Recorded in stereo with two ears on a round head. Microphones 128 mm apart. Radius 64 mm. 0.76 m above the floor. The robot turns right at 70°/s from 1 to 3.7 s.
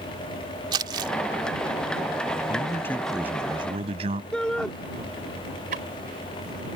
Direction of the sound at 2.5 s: 140° left.